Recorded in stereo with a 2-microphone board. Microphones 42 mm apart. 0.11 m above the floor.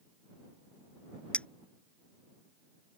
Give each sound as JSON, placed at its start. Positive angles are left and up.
{"t": 1.3, "sound": "a clink", "side_deg": 30}